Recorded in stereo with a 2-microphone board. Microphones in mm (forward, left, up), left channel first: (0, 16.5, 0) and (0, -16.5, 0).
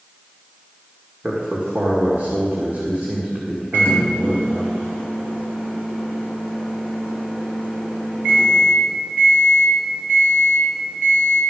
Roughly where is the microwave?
Right.